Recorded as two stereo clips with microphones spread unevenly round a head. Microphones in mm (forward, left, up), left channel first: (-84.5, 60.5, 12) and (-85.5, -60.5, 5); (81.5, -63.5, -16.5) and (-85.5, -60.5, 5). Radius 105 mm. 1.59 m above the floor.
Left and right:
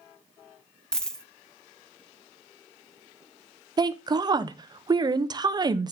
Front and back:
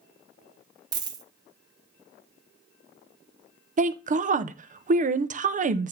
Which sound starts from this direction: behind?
A dropped coin, at 0.9 s.